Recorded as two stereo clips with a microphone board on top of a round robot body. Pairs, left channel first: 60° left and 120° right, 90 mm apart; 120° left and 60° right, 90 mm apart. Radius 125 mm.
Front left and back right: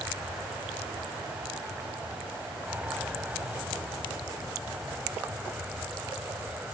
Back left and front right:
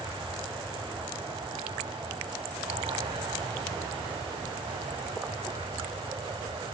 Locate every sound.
0.0 s an aircraft: 40° right; by 6.7 s 45° right